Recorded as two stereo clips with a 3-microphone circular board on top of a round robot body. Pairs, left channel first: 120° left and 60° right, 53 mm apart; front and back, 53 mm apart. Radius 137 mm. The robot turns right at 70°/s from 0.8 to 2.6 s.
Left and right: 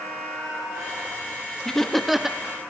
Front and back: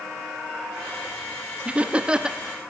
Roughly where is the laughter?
Behind.